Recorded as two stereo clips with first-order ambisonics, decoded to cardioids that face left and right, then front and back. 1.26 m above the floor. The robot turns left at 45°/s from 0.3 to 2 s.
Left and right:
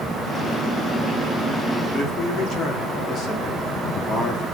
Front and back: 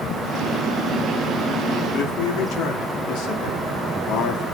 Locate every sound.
1.9 s a man speaking: 30° left, 2.5 m